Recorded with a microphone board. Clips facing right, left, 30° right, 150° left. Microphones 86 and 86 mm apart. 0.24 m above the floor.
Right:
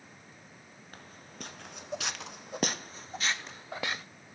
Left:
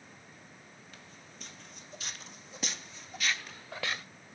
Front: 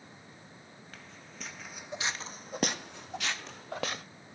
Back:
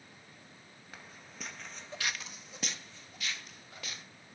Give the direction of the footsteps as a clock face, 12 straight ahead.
4 o'clock.